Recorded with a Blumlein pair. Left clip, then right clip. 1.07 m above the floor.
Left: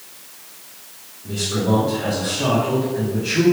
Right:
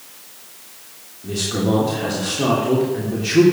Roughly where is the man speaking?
Ahead right.